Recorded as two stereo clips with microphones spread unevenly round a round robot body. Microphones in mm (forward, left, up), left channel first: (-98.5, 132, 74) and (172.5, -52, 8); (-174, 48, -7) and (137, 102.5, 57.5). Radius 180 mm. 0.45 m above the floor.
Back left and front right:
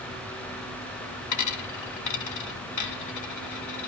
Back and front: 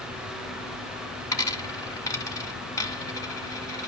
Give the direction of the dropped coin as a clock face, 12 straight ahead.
8 o'clock.